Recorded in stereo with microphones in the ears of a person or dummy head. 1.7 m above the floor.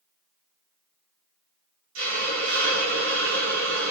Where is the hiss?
70° right (ahead or behind), 2.5 m.